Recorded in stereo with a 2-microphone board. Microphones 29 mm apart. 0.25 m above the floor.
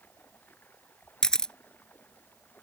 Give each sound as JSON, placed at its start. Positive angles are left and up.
{"t": 0.0, "sound": "running water", "side_deg": 85}
{"t": 1.2, "sound": "a camera shutter", "side_deg": 25}